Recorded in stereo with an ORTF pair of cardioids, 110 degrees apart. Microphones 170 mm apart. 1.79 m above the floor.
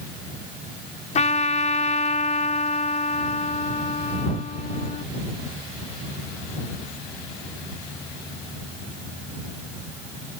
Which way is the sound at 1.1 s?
45° left.